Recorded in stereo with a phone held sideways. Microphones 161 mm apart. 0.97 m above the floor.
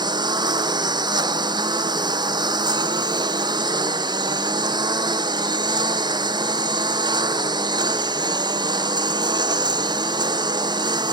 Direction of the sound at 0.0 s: 25° right (ahead or behind).